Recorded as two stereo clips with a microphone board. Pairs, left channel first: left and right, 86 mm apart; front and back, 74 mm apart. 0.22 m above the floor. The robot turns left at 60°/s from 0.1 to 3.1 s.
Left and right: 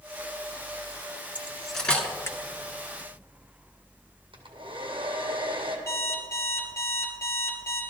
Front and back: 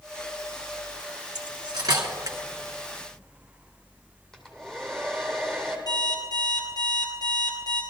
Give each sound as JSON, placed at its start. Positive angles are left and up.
{"t": 1.4, "sound": "cutlery clinking", "azimuth_deg": -165, "distance_m": 1.8}
{"t": 4.3, "sound": "a hair dryer", "azimuth_deg": -80, "distance_m": 1.9}
{"t": 5.9, "sound": "an alarm clock", "azimuth_deg": 30, "distance_m": 2.5}